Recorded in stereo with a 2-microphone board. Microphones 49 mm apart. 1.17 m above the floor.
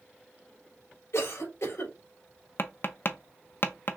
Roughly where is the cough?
Left.